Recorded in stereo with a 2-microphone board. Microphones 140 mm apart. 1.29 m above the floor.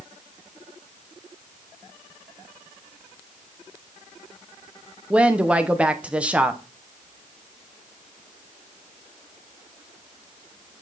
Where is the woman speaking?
10° right (ahead or behind), 0.8 m.